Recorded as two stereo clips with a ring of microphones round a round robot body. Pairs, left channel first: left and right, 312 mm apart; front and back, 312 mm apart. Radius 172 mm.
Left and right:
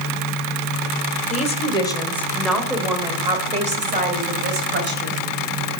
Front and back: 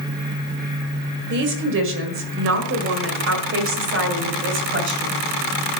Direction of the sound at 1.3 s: 145° left.